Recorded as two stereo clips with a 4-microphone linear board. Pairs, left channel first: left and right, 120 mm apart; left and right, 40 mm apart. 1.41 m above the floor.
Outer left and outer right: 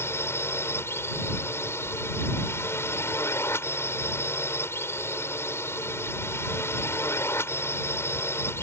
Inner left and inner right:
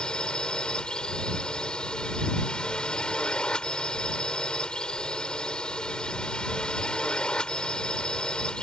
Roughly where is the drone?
Centre.